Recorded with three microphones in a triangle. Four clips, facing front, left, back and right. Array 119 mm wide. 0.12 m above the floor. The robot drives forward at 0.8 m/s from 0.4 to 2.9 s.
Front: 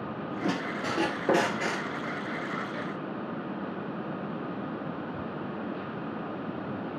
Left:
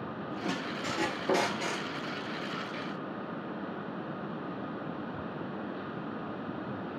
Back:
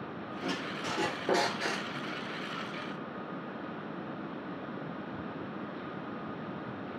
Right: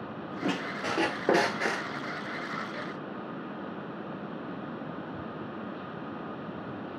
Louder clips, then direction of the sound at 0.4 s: Right 4 dB, front 5 dB; 45° right.